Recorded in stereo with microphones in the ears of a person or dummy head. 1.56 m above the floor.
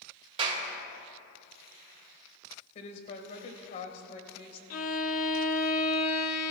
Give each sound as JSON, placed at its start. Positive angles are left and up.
{"t": 0.4, "sound": "a clap", "side_deg": -35, "distance_m": 2.0}
{"t": 2.8, "sound": "a woman speaking", "side_deg": 40, "distance_m": 1.6}
{"t": 4.7, "sound": "a violin", "side_deg": 50, "distance_m": 0.9}